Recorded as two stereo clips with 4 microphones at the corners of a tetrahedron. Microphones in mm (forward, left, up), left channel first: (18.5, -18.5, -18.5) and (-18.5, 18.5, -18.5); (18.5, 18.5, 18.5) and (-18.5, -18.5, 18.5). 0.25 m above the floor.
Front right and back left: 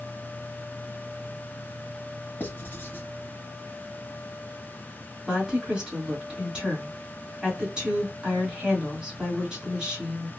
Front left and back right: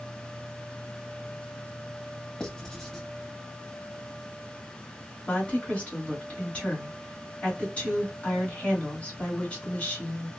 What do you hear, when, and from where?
2.4 s writing: 25° right, 0.9 m
5.3 s a woman speaking: 75° left, 1.7 m